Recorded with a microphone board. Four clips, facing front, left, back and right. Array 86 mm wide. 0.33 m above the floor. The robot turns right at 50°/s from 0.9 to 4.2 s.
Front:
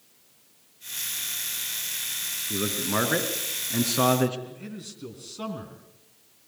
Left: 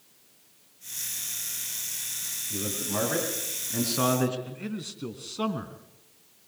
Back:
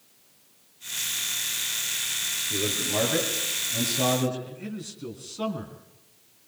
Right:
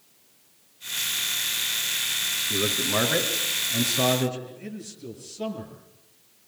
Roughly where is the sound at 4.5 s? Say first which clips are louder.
Left 2 dB, back 3 dB; left.